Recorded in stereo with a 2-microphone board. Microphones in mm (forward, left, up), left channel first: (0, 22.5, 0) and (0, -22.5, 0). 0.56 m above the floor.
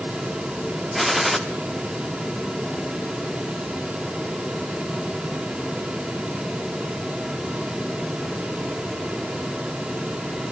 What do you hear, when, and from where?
0.9 s a gunshot: 5° right (ahead or behind), 1.2 m